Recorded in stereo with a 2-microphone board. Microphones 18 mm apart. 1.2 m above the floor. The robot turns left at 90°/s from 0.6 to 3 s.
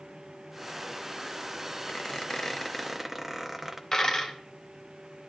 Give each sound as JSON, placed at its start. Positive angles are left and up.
{"t": 1.9, "sound": "a squeak", "azimuth_deg": 85, "distance_m": 0.8}
{"t": 3.9, "sound": "a dropped coin", "side_deg": 30, "distance_m": 1.4}